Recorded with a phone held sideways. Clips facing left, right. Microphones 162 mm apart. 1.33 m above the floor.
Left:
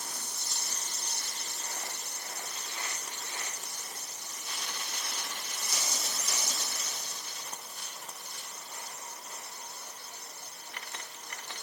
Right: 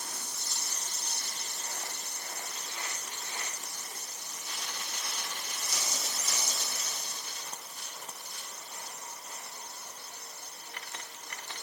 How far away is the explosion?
I don't hear an explosion.